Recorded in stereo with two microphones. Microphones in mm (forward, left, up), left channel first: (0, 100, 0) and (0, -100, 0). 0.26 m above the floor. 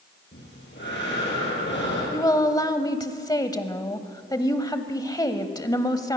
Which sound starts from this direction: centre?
A woman speaking, at 2.1 s.